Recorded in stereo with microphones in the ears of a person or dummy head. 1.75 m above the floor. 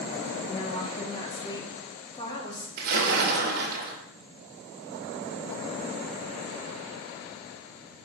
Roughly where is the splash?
Right.